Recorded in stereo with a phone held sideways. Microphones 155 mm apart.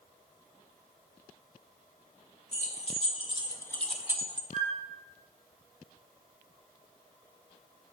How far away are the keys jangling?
About 1.1 m.